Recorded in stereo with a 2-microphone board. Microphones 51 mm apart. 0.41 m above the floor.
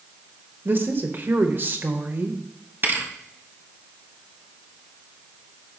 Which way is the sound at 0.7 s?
45° right (ahead or behind).